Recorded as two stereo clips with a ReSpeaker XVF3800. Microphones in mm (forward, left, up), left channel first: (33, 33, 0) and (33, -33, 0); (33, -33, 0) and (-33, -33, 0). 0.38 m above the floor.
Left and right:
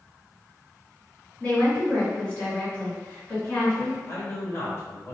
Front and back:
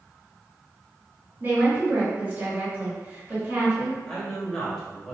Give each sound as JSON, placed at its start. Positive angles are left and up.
{"t": 1.4, "sound": "a woman speaking", "azimuth_deg": 140, "distance_m": 1.9}
{"t": 4.1, "sound": "a man speaking", "azimuth_deg": 75, "distance_m": 1.1}